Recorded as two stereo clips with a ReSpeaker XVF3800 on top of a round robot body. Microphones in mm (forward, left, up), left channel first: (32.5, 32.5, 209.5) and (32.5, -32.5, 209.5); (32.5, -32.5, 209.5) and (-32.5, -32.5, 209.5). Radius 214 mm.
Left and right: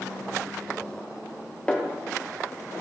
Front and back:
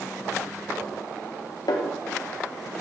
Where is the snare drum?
15° left, 0.7 m.